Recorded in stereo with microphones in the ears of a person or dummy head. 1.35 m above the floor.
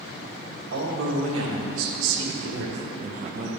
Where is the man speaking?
75° right (ahead or behind), 2 m; by 3.5 s 40° right (ahead or behind), 1.2 m.